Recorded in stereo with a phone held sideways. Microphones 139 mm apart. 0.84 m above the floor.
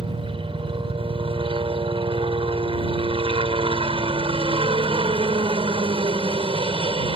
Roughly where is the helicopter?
Right.